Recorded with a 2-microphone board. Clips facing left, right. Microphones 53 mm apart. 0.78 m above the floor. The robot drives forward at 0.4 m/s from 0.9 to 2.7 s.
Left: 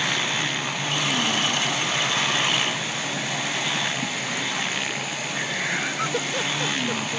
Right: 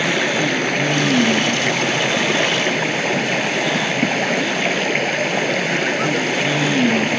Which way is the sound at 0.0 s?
60° right (ahead or behind).